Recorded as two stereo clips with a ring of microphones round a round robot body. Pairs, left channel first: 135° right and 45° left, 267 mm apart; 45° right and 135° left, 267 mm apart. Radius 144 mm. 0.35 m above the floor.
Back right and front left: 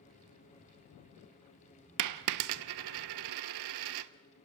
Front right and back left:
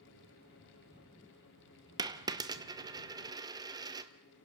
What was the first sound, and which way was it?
A dropped coin, 60° left.